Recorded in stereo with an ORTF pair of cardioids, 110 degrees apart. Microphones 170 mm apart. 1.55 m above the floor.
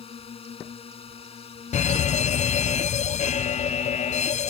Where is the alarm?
45° left.